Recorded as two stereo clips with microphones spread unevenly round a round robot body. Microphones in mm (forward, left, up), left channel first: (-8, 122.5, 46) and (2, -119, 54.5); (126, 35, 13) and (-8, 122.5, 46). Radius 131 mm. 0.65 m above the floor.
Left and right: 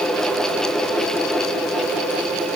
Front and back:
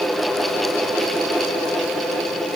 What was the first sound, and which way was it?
Only background noise.